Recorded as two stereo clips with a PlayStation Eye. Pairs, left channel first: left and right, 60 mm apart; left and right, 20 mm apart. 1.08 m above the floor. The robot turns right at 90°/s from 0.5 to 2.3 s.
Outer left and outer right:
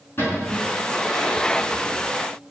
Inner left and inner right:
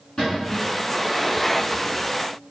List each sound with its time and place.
0.2 s a cupboard door: 40° left (ahead or behind), 5 m; by 0.7 s 25° left (ahead or behind), 5 m